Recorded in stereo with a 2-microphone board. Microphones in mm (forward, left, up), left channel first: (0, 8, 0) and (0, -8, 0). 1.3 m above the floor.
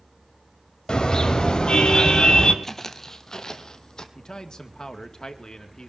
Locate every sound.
0.9 s a car horn: 55° left (ahead or behind), 3 m
2.6 s footsteps: 20° left (ahead or behind), 1.4 m; by 4.0 s 45° left (ahead or behind), 2 m
4.2 s a man speaking: 55° left (ahead or behind), 2 m